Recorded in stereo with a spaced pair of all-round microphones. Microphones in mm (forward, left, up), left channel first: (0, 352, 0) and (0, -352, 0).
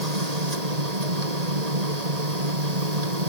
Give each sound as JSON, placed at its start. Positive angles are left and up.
{"t": 0.0, "sound": "a machine running", "side_deg": -60}